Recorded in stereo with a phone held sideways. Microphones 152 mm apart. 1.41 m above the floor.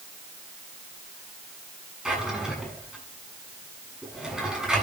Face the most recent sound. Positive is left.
turn(degrees=-5)  # may be behind; listen again after turning